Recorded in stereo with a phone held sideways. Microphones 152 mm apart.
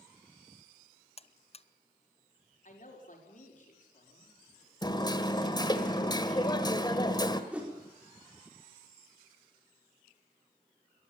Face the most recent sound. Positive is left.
turn(degrees=-5)  # may be behind; listen again after turning